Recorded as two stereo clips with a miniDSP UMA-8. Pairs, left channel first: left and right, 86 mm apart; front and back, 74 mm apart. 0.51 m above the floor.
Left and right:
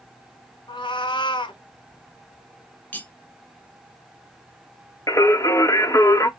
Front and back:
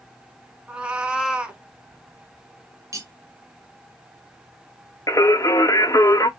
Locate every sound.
0.7 s a cat meowing: 105° left, 0.7 m
2.9 s cutlery clinking: 155° left, 0.8 m
5.1 s singing: 40° left, 0.6 m